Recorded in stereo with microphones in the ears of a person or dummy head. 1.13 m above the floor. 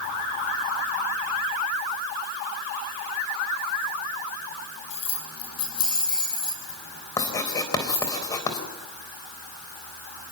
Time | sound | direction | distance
4.9 | keys jangling | 40° left (ahead or behind) | 7 m
7.2 | writing | 20° left (ahead or behind) | 3.5 m